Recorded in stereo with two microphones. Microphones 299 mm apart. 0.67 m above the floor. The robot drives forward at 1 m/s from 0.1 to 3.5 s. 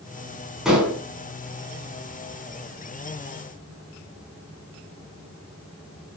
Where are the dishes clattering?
Centre (ahead or behind), 4.5 m.